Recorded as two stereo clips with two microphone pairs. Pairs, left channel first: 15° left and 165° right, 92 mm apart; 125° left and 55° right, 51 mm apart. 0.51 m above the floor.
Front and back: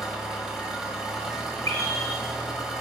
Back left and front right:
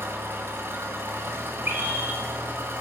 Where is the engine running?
85° right, 1.5 m.